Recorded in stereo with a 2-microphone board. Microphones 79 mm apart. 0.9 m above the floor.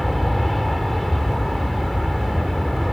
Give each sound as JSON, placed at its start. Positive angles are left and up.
{"t": 0.0, "sound": "an aircraft", "side_deg": 0}